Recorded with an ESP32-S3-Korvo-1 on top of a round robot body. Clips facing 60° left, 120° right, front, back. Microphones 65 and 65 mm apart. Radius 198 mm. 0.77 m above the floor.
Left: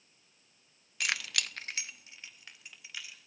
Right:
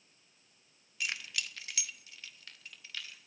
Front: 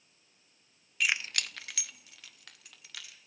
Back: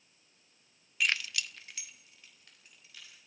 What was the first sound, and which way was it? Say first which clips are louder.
Keys jangling: left 4 dB, front 1 dB; 90° left.